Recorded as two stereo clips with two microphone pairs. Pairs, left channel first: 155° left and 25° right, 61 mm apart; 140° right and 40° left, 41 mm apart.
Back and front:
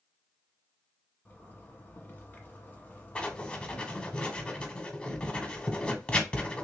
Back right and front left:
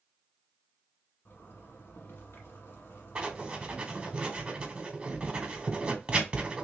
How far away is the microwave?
I don't hear a microwave.